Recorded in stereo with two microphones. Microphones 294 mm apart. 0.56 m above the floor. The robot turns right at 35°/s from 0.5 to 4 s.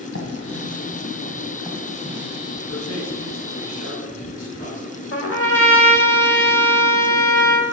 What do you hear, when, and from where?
0.1 s writing: 55° left (ahead or behind), 1.8 m; by 2.6 s 20° right (ahead or behind), 1.8 m
2.7 s a man speaking: 105° left, 4 m; by 4.9 s 150° left, 4 m
5.1 s a trumpet: 50° left (ahead or behind), 1.0 m